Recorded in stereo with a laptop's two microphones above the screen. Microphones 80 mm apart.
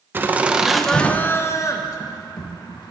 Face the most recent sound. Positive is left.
turn(degrees=60)  # may be behind; listen again after turning